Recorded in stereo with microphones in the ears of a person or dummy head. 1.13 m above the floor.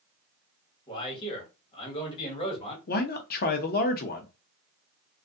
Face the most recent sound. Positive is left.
turn(degrees=40)  # may be behind; listen again after turning